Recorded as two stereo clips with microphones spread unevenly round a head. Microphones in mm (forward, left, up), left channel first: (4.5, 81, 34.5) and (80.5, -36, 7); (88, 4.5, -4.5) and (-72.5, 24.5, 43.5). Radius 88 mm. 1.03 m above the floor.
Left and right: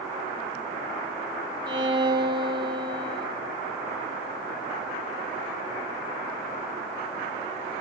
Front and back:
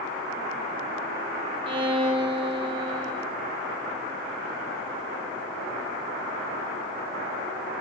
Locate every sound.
1.7 s a violin: 120° right, 3 m